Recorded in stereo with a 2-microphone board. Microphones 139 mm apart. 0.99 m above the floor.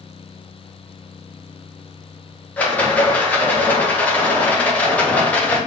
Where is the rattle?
10° left (ahead or behind), 0.7 m.